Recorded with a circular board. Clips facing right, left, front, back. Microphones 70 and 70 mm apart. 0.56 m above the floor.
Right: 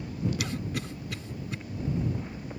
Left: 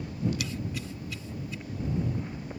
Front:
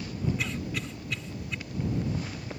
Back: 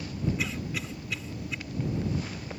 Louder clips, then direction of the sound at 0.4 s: Right 2 dB, even; 95° right.